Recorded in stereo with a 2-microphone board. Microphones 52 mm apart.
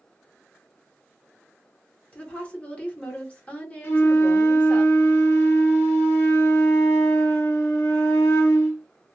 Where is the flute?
55° left (ahead or behind), 1.1 m.